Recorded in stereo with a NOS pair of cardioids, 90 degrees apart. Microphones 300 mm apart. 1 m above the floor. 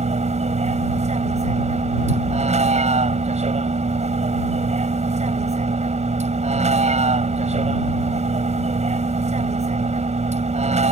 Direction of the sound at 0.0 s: 20° right.